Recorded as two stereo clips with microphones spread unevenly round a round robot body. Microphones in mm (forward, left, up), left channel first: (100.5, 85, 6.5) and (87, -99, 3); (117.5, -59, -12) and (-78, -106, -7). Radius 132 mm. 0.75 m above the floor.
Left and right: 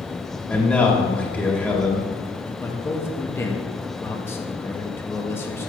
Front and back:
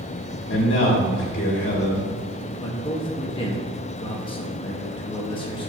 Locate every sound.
0.5 s a man speaking: 5° left, 2 m
2.6 s a man speaking: 20° left, 1.1 m